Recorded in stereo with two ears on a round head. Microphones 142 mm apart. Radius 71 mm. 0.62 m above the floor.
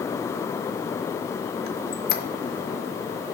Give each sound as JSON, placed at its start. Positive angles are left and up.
{"t": 1.7, "sound": "a squeak", "side_deg": 70, "distance_m": 0.9}